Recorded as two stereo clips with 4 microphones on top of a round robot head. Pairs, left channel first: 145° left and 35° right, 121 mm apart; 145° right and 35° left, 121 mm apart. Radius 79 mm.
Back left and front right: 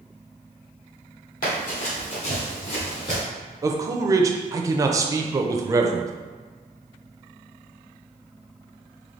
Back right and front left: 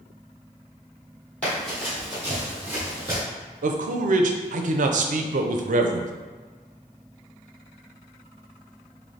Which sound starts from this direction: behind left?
Running footsteps, at 1.4 s.